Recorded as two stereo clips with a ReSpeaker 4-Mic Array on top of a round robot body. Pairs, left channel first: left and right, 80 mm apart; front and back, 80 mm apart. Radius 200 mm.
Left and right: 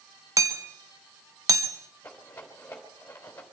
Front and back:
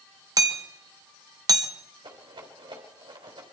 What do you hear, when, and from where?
0.4 s hammering: 135° right, 1.8 m
2.0 s a rattle: 160° left, 3 m